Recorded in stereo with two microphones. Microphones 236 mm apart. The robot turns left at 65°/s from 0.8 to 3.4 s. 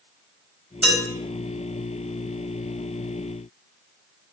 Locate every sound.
0.8 s dishes clattering: 5° right (ahead or behind), 4.5 m; by 1.0 s 5° left (ahead or behind), 4.5 m